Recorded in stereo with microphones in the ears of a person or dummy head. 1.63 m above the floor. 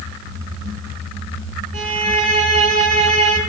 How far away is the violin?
About 5.5 m.